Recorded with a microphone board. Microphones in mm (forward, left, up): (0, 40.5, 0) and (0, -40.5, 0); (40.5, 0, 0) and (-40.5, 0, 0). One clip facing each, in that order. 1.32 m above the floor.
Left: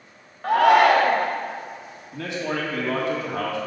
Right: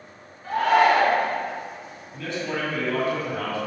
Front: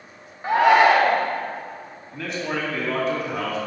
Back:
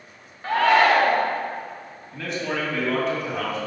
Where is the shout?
70° left, 0.8 m.